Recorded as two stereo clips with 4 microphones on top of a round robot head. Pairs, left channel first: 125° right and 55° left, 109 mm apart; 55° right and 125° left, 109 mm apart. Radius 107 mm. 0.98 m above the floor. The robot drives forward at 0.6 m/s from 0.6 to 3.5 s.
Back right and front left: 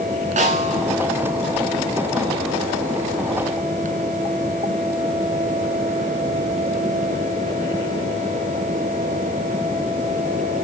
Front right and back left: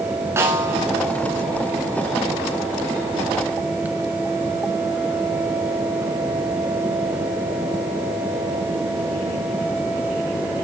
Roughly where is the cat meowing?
I don't hear a cat meowing.